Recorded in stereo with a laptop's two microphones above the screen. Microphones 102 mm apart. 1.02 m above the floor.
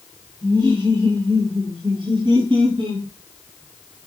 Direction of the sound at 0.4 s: 50° right (ahead or behind).